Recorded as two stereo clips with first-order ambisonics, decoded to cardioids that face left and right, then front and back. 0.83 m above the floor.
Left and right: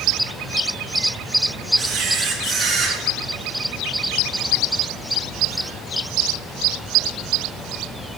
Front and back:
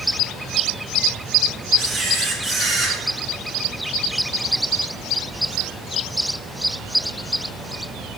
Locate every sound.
1.8 s a camera shutter: 115° right, 1.0 m